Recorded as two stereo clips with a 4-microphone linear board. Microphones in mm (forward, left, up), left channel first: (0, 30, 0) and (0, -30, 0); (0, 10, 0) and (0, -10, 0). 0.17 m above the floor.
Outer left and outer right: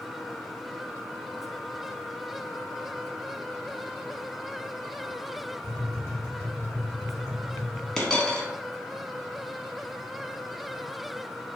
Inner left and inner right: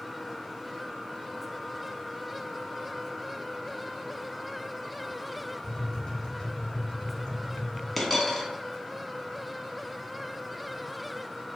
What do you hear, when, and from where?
5.6 s tapping: 45° left (ahead or behind), 1.4 m
8.0 s a dropped coin: 10° left (ahead or behind), 0.7 m